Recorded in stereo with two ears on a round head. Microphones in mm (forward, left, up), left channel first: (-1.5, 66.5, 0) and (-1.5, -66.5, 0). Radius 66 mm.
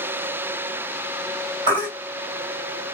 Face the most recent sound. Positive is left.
turn(degrees=-35)  # may be behind; listen again after turning